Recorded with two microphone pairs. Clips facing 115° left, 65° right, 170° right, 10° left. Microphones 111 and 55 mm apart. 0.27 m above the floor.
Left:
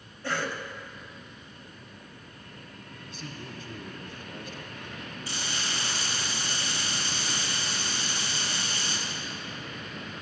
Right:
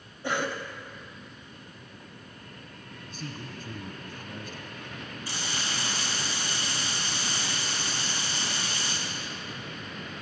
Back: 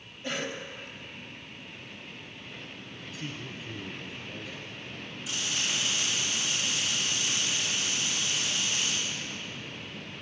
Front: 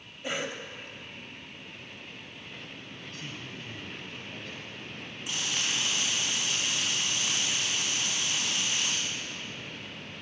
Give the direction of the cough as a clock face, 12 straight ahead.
1 o'clock.